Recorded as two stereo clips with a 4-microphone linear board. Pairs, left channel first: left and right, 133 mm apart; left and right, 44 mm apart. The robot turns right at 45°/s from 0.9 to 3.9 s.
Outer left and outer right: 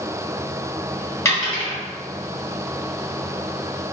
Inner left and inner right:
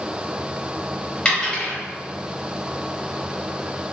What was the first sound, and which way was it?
A dropped coin, 20° left (ahead or behind).